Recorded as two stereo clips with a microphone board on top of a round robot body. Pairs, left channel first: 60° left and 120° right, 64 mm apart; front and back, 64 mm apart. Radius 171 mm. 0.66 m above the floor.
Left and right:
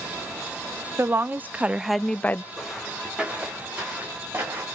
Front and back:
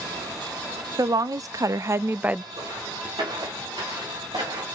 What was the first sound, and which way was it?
A woman speaking, 165° right.